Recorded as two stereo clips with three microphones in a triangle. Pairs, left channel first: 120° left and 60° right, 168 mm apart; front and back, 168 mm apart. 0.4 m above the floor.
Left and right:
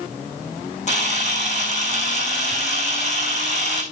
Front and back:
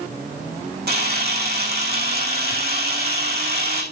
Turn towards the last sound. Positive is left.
turn(degrees=165)